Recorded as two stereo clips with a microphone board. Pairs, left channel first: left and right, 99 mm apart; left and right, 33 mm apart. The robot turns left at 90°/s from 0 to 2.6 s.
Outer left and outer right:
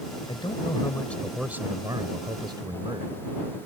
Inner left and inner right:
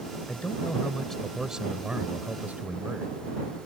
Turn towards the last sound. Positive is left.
turn(degrees=-120)